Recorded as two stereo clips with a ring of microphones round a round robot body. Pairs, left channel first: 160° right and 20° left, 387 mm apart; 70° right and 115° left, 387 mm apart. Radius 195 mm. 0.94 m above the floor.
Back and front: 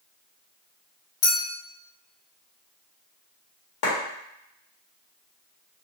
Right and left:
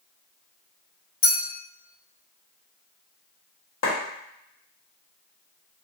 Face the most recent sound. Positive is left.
turn(degrees=-120)